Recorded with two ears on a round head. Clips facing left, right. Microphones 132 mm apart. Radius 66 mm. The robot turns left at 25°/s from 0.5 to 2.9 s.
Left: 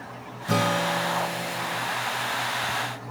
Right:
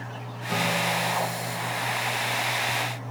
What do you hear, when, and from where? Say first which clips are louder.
0.5 s a guitar: left 3 dB; 100° left, 0.8 m; by 1.9 s 65° left, 0.8 m